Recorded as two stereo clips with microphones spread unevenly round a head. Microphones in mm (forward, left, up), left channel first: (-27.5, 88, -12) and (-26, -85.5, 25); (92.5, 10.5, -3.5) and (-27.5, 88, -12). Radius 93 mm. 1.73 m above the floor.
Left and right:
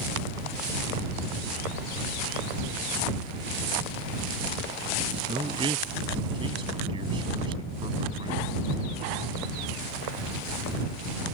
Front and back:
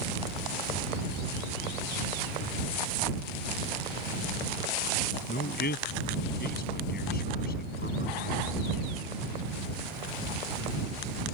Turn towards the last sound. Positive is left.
turn(degrees=-25)